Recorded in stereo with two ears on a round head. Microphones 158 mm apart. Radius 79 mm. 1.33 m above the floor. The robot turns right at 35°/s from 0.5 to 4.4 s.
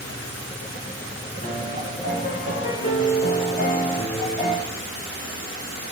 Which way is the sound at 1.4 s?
50° left.